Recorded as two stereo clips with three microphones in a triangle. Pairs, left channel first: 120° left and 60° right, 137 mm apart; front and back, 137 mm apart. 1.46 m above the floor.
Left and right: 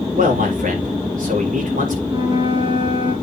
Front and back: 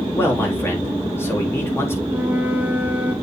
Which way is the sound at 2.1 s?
105° right.